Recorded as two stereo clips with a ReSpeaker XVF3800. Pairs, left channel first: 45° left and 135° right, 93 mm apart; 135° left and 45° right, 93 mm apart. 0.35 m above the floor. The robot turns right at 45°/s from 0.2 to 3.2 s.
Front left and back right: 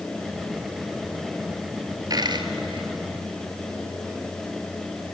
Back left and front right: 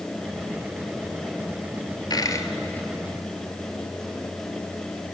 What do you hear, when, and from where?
2.1 s a dropped coin: straight behind, 1.1 m; by 5.1 s 130° right, 1.1 m